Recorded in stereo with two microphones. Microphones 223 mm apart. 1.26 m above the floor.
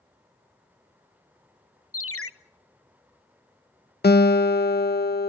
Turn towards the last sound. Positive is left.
turn(degrees=45)  # may be behind; listen again after turning